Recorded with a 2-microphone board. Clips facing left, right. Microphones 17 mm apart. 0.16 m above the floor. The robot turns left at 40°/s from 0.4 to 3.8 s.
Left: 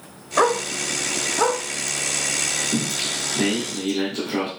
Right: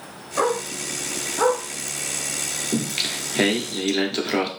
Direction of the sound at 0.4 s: 30° left (ahead or behind).